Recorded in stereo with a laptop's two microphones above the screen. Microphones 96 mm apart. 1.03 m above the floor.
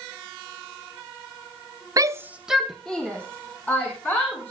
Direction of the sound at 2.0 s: 40° right (ahead or behind).